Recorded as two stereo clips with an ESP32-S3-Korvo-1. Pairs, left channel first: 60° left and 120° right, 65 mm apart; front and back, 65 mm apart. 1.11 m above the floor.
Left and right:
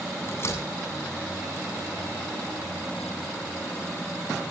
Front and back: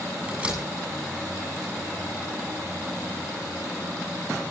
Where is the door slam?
105° left, 7.5 m.